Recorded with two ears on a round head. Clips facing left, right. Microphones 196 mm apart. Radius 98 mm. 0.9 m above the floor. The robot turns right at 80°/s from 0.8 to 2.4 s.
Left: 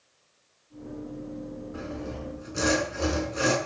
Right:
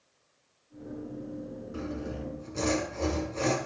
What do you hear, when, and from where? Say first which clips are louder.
1.7 s sawing: right 2 dB; 40° right, 5.5 m; by 3.6 s 10° left, 5.5 m